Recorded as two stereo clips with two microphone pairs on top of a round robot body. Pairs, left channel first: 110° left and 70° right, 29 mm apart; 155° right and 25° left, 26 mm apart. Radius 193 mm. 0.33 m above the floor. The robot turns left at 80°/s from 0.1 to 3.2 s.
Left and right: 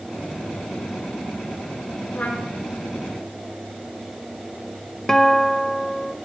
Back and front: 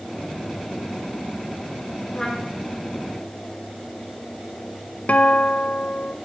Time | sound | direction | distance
2.1 | a trumpet | 140° left | 5 m
5.1 | a guitar | 175° right | 1.5 m